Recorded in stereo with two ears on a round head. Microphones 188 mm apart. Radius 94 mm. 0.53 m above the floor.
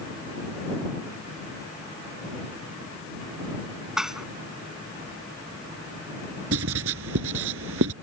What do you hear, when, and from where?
4.0 s dishes clattering: 5° right (ahead or behind)
6.5 s writing: 70° right (ahead or behind)